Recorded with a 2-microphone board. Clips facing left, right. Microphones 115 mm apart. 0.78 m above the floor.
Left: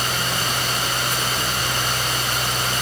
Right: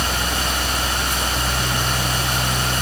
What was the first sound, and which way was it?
Only background noise.